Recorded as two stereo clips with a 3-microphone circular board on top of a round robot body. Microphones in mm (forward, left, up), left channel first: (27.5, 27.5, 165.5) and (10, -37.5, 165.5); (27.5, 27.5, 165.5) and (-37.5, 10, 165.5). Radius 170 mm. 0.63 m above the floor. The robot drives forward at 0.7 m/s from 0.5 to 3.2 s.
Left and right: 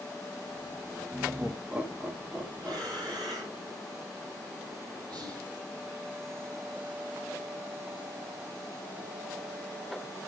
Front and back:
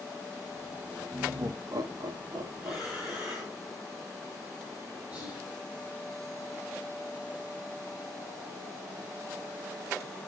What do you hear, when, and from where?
1.1 s laughter: 170° right, 1.1 m; by 3.6 s 175° right, 2.5 m
2.6 s breathing: 80° right, 7 m; by 3.6 s 85° right, 7 m
5.1 s whispering: 95° right, 6.5 m